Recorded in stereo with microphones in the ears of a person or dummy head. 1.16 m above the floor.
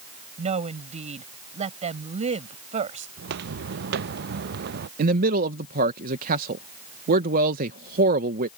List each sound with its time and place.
0.4 s a woman speaking: 35° right (ahead or behind)
3.2 s footsteps: 60° right (ahead or behind); by 4.9 s 55° right (ahead or behind)
5.0 s a man speaking: 50° right (ahead or behind)